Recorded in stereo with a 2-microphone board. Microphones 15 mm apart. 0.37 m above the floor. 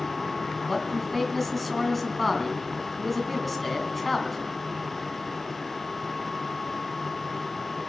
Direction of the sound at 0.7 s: 5° left (ahead or behind).